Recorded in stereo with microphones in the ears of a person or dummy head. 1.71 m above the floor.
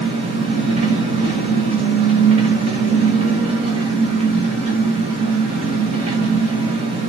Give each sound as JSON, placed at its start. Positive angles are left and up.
{"t": 0.0, "sound": "an engine running", "side_deg": -35, "distance_m": 1.3}